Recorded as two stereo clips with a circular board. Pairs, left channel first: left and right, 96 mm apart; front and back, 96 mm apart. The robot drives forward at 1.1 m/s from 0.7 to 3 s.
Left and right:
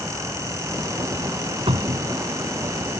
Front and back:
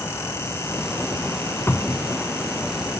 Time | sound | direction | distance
1.7 | a cupboard door | 65° right | ?